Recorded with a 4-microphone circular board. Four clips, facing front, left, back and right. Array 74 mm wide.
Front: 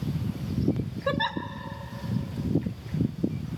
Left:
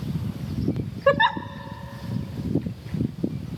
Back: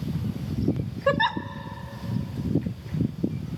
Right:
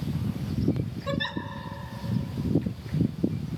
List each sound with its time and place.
1.1 s a giggle: 105° left, 0.5 m